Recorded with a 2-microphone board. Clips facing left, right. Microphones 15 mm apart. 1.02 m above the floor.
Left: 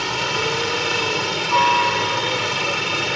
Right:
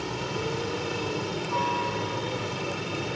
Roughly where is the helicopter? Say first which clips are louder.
Left 10 dB; left.